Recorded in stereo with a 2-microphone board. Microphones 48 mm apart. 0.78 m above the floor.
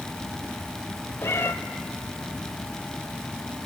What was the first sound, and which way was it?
A cat meowing, 70° left (ahead or behind).